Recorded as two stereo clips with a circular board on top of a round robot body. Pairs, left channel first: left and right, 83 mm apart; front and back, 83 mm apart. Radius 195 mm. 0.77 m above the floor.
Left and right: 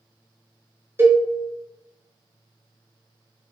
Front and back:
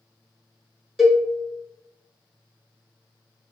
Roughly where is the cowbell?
Right.